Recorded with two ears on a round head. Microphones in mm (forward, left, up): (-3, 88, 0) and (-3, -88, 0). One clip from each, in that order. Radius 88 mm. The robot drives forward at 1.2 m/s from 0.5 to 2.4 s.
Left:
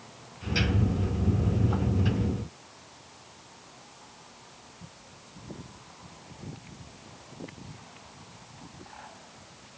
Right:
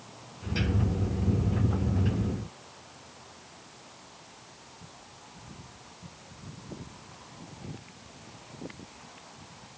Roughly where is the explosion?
I don't hear an explosion.